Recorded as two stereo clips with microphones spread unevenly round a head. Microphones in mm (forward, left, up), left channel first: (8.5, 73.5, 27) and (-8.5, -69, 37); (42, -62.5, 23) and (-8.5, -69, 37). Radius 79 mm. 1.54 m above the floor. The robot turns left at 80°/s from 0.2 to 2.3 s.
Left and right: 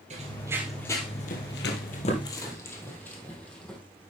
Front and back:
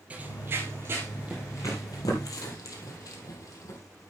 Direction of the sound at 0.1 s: 130° right.